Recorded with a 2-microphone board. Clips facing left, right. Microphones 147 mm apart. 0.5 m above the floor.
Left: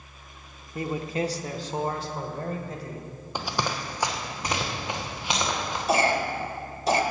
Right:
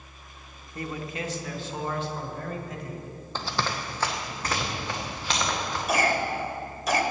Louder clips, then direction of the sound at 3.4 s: Left 1 dB; 15° left (ahead or behind).